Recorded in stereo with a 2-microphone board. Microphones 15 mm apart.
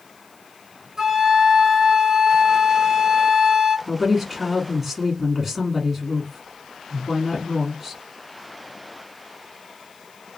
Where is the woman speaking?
5° right (ahead or behind), 1.1 m.